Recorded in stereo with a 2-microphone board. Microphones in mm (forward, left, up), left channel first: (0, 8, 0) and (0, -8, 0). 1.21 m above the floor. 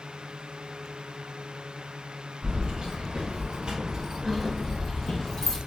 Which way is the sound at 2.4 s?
80° right.